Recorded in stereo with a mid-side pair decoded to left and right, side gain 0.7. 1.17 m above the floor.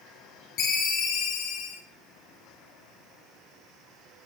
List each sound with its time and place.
0.6 s a ringtone: 55° left, 2 m